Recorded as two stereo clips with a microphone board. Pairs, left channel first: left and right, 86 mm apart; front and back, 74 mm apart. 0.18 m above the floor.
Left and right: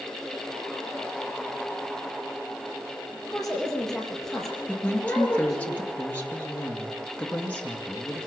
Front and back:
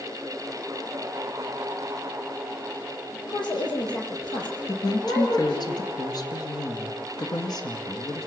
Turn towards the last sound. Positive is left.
turn(degrees=15)